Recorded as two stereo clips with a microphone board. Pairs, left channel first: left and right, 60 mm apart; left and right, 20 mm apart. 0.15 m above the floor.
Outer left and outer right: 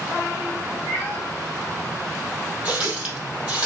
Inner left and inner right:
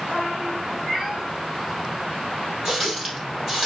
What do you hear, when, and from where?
0.9 s a cat meowing: 35° right (ahead or behind), 3.5 m
2.6 s a running tap: 20° right (ahead or behind), 3.5 m